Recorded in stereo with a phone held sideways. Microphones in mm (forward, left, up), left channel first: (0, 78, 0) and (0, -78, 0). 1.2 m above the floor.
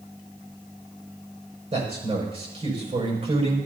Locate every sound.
1.7 s a man speaking: 40° right (ahead or behind), 5.5 m